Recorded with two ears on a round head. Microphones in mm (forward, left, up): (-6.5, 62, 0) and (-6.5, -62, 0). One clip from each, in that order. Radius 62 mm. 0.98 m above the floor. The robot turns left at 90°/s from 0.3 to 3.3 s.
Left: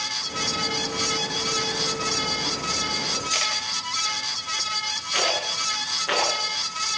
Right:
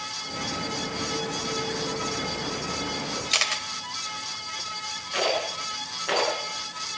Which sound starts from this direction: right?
A camera shutter, at 3.3 s.